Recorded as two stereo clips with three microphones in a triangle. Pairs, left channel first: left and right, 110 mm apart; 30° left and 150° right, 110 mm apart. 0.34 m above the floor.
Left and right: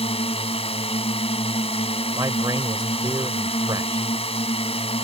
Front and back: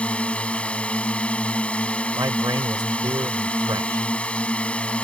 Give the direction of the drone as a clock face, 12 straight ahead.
8 o'clock.